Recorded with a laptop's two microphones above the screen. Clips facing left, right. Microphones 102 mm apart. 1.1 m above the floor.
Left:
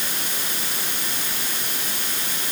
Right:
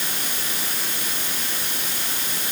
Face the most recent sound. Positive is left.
No sound to turn to.